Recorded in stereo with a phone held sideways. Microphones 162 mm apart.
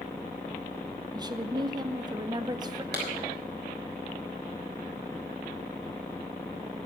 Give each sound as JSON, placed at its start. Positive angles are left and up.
{"t": 1.1, "sound": "a woman speaking", "side_deg": -25, "distance_m": 0.8}
{"t": 2.9, "sound": "a clap", "side_deg": -85, "distance_m": 3.5}